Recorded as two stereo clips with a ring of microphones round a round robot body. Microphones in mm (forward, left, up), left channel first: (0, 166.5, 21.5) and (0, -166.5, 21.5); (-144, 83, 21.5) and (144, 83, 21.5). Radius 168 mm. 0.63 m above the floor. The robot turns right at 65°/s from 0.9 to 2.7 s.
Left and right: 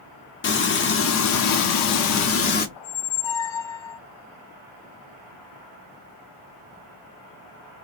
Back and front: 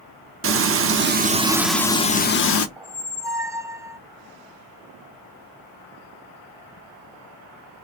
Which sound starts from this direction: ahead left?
Frying, at 0.4 s.